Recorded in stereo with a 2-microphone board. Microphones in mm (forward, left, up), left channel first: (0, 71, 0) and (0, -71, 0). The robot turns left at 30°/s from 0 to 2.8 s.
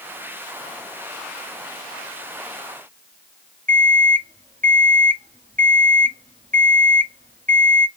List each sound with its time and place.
3.7 s an alarm clock: 70° right (ahead or behind), 0.9 m